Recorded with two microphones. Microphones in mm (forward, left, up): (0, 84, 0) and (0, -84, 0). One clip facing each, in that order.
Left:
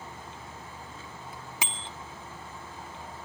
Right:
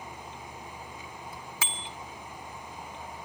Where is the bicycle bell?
20° left (ahead or behind), 2 m.